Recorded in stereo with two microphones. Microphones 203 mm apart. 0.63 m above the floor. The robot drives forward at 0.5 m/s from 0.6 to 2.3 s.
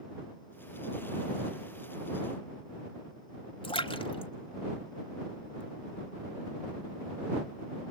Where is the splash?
25° left (ahead or behind), 1.3 m.